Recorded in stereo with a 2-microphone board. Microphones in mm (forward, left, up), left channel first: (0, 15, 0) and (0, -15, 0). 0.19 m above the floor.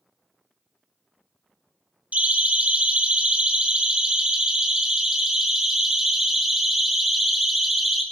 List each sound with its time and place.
2.1 s a siren: 60° right (ahead or behind), 3.5 m; by 8.0 s 5° right (ahead or behind), 6.5 m